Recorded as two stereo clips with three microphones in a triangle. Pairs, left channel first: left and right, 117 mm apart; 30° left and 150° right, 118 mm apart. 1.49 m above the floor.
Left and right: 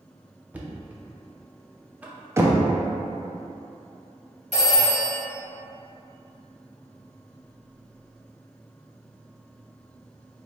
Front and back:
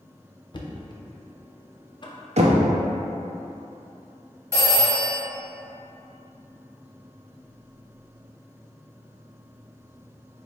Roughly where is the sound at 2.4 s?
Behind.